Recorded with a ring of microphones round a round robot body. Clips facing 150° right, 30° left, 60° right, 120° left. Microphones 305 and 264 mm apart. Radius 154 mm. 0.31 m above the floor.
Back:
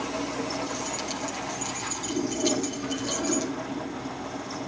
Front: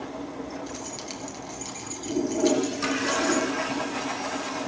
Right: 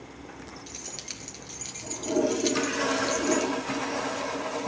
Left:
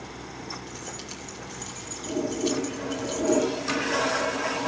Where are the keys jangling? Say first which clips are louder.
Back 3 dB, left 5 dB; 60° right, 3.5 m.